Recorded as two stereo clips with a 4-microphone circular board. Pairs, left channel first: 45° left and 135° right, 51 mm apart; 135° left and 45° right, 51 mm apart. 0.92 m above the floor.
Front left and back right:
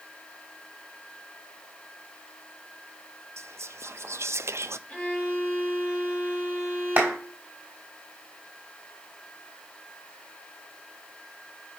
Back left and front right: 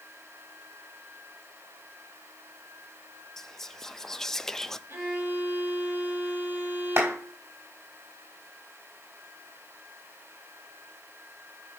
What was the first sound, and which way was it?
Whispering, 145° right.